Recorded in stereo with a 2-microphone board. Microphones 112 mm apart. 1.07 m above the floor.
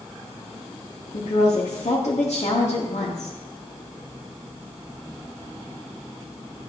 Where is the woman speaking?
75° left (ahead or behind), 1.6 m.